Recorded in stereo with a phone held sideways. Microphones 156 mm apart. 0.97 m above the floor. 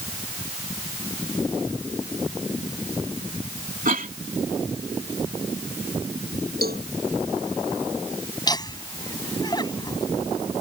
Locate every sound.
3.9 s a cough: 60° right (ahead or behind)
6.6 s a cowbell: 75° right (ahead or behind)
8.5 s laughter: 25° left (ahead or behind)